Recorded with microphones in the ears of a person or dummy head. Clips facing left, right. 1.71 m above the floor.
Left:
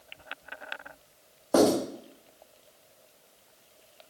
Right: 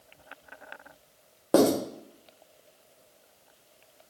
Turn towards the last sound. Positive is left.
turn(degrees=-40)  # may be behind; listen again after turning